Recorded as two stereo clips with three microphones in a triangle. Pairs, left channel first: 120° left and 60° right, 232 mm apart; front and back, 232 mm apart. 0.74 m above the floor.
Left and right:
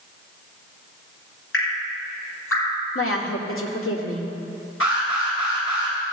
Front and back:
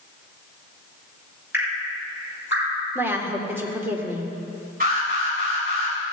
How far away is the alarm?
About 4.5 m.